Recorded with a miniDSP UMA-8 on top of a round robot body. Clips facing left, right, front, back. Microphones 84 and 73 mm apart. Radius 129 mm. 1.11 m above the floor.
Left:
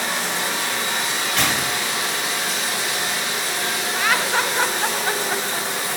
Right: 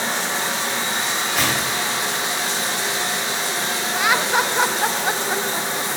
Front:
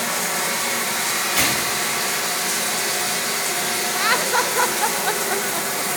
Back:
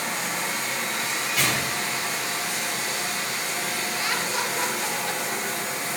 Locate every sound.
0.0 s running water: 25° right, 0.9 m
1.4 s tearing paper: 5° right, 1.2 m
4.0 s laughter: 15° right, 0.5 m